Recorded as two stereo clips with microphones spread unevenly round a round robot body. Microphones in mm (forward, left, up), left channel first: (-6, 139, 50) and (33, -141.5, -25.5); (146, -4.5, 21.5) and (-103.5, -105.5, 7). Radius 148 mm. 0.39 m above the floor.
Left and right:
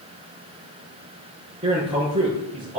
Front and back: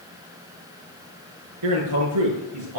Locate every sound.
1.6 s a man speaking: 155° right, 6 m